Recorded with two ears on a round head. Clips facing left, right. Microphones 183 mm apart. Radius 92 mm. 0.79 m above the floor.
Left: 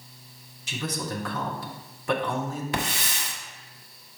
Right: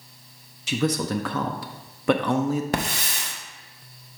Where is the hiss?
40° right (ahead or behind), 1.3 m.